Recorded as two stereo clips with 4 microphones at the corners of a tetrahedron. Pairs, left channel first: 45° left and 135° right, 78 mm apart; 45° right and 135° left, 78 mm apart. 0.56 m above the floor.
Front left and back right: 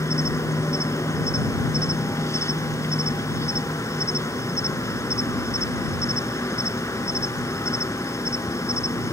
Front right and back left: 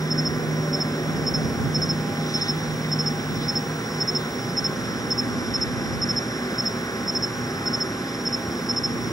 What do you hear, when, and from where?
0.0 s an insect: 5° right